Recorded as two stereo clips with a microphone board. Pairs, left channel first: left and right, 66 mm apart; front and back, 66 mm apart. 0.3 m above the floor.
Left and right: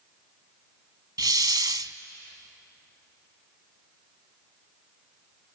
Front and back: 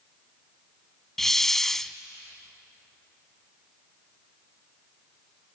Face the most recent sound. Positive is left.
turn(degrees=-85)